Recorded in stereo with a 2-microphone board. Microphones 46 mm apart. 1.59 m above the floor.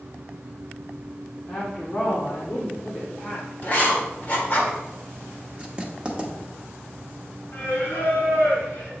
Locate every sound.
1.5 s a woman speaking: 35° left (ahead or behind), 1.3 m
3.6 s writing: 35° left (ahead or behind), 1.5 m
5.6 s writing: 20° right (ahead or behind), 1.0 m
7.5 s singing: 50° left (ahead or behind), 3 m